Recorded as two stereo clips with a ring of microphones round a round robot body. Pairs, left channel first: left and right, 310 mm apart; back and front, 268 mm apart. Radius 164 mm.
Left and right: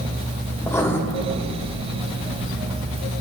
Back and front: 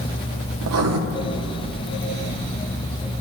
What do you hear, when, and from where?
0.6 s writing: 10° left, 1.2 m